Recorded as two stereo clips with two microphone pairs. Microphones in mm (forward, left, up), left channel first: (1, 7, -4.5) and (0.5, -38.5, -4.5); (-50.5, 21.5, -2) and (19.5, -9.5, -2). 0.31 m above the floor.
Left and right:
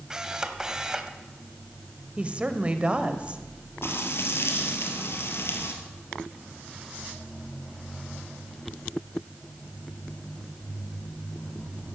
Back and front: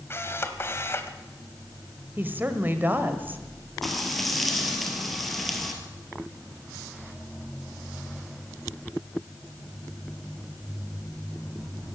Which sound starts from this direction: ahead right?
A woman speaking, at 2.2 s.